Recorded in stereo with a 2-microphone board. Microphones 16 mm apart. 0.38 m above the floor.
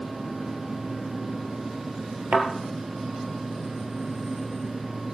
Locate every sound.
2.3 s a thud: 70° right (ahead or behind), 2.5 m